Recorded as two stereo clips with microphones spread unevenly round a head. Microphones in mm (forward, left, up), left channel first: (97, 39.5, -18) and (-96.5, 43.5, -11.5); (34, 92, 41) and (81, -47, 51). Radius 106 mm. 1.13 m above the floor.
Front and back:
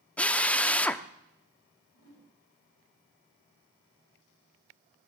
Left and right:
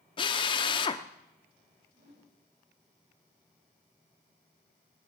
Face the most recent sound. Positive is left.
turn(degrees=-50)